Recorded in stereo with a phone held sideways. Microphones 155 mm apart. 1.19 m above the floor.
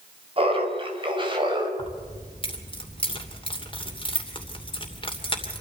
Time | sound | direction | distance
0.4 | laughter | 35° right (ahead or behind) | 4.5 m
1.8 | keys jangling | 35° left (ahead or behind) | 2.5 m